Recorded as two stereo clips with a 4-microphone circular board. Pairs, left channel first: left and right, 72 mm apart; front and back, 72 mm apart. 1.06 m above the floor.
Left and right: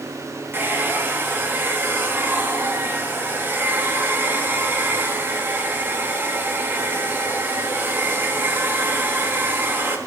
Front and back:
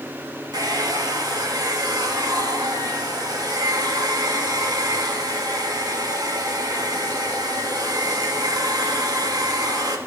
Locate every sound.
0.5 s a hair dryer: 150° right, 1.6 m